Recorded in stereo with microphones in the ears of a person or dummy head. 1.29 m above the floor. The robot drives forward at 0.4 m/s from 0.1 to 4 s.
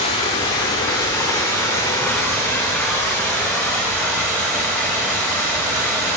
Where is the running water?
20° left (ahead or behind), 0.9 m; by 6.2 s 10° left (ahead or behind), 1.9 m.